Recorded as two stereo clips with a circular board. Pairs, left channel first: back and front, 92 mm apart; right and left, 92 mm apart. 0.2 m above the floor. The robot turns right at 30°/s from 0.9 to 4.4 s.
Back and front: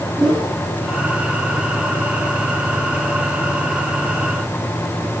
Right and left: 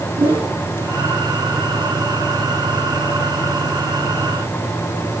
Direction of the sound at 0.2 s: 85° left.